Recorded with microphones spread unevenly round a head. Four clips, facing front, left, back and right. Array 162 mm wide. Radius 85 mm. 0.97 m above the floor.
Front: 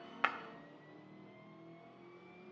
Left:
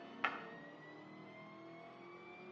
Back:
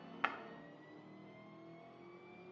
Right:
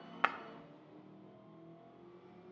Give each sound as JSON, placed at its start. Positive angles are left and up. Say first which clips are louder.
{"t": 0.2, "sound": "breaking glass", "louder": "right 7 dB, front 3 dB", "azimuth_deg": -60, "distance_m": 0.6}